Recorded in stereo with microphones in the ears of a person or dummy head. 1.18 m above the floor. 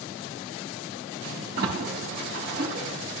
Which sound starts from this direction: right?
A splash, at 1.6 s.